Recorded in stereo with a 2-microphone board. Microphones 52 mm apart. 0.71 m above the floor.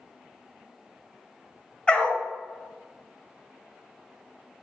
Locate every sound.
1.9 s a dog barking: 20° left (ahead or behind), 1.3 m